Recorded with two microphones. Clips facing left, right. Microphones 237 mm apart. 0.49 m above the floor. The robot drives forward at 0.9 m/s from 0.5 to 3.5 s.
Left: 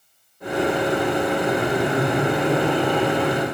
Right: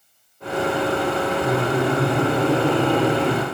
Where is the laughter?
10° right (ahead or behind), 2.5 m; by 3.5 s 25° right (ahead or behind), 1.1 m.